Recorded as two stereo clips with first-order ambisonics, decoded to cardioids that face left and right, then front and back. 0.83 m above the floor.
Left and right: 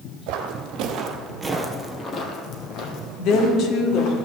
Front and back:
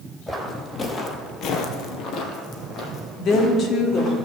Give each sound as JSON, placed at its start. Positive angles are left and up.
{"t": 0.3, "sound": "footsteps", "azimuth_deg": -80, "distance_m": 1.7}
{"t": 3.2, "sound": "a woman speaking", "azimuth_deg": 50, "distance_m": 1.6}